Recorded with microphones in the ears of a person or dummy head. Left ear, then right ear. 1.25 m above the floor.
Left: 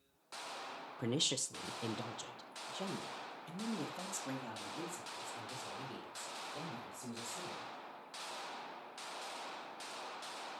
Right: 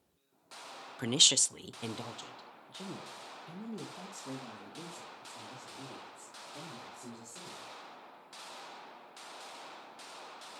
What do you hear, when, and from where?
1.0 s a woman speaking: 40° right (ahead or behind), 0.5 m; by 7.7 s centre (ahead or behind), 3.5 m